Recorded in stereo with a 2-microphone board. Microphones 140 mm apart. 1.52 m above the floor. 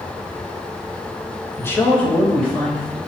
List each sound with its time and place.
1.6 s a man speaking: 20° left (ahead or behind), 0.6 m; by 3.0 s 5° left (ahead or behind), 1.5 m